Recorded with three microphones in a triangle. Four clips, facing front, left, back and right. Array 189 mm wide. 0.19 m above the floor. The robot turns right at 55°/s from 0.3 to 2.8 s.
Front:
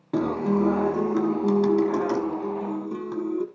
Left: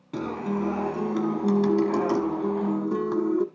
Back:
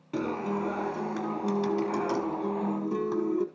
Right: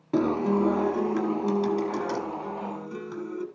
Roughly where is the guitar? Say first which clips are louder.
Right 5 dB, front 7 dB; ahead right.